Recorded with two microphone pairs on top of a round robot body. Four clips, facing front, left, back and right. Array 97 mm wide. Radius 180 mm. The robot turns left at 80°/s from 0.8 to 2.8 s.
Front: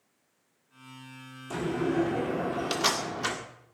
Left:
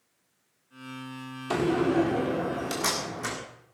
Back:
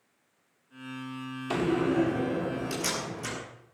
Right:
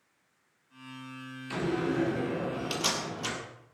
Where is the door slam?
110° left, 2.0 m; by 3.4 s 10° left, 2.0 m.